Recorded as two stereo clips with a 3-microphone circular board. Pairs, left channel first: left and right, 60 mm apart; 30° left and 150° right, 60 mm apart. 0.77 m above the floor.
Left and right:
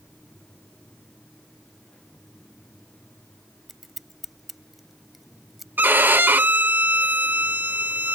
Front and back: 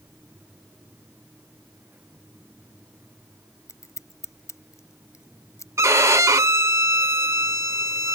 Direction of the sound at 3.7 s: 5° right.